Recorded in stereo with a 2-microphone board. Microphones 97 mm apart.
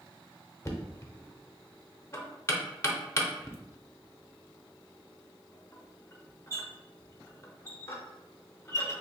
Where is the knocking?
30° left (ahead or behind), 0.6 m.